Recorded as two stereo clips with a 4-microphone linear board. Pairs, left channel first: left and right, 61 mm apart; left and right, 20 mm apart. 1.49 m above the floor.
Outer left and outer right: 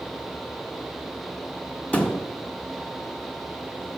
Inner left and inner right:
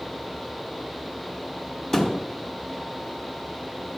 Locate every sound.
1.9 s a thud: 25° left (ahead or behind), 1.2 m